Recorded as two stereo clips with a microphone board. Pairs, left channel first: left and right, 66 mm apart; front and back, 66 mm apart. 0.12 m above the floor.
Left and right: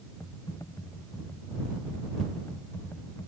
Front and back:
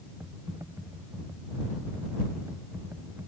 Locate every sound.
0.2 s typing on a keyboard: 130° left